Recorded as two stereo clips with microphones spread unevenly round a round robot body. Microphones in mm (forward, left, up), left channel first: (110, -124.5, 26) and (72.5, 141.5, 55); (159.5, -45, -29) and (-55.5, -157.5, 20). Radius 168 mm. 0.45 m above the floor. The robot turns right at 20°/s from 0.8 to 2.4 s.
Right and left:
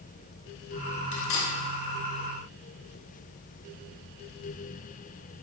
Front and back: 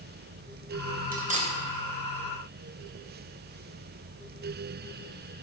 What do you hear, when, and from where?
1.1 s cutlery clinking: 90° right, 1.5 m; by 1.5 s 80° right, 1.5 m